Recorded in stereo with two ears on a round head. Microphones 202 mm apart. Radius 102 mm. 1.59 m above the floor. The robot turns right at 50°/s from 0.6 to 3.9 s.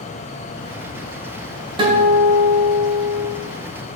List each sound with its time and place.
1.8 s a guitar: 155° right, 2.5 m; by 3.3 s 80° right, 2.5 m